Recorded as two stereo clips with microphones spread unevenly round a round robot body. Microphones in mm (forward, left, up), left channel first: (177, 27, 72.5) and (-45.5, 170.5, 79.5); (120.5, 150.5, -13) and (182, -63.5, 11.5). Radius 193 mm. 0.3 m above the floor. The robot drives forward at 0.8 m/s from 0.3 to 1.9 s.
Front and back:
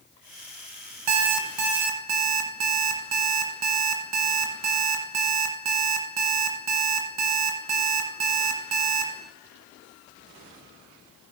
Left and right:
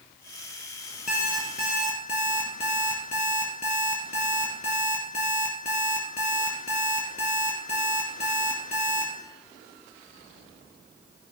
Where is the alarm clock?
170° left, 0.9 m; by 9.1 s 175° left, 1.5 m.